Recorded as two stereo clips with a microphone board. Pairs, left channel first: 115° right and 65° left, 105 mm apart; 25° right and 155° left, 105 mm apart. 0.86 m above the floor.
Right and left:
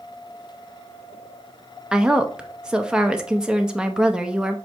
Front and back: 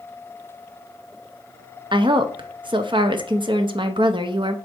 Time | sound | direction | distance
1.9 | a woman speaking | 150° left | 0.6 m